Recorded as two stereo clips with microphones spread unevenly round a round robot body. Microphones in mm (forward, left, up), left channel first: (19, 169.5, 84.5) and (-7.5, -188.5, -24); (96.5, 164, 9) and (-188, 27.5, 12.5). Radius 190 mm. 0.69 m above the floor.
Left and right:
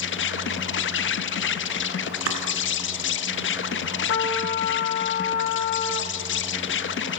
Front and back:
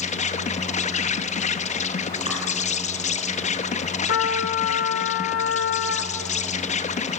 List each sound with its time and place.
0.0 s an insect: 30° left, 0.8 m
2.3 s chopping: 75° right, 3 m
4.1 s a trumpet: 75° left, 1.8 m